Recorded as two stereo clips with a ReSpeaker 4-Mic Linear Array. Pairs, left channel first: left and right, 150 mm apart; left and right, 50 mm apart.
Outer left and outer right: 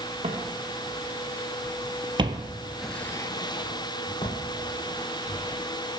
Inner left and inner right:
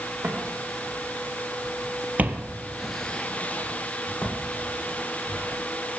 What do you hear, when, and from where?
0.2 s footsteps: 45° right (ahead or behind), 3.5 m; by 6.0 s 40° left (ahead or behind), 4.5 m